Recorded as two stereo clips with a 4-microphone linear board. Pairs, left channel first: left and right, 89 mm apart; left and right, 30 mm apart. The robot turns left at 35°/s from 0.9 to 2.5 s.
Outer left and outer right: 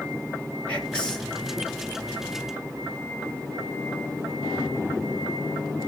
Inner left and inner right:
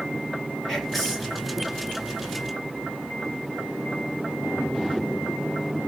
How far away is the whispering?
About 3 m.